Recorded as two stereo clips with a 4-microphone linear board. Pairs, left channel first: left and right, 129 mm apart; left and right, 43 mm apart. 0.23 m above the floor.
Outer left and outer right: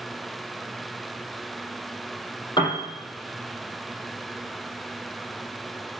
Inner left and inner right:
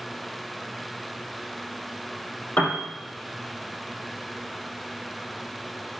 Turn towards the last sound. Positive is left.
turn(degrees=35)  # may be behind; listen again after turning